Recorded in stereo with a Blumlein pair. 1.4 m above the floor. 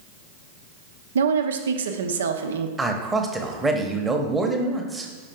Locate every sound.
1.1 s a woman speaking: 65° right, 0.7 m
2.8 s a man speaking: 10° right, 1.0 m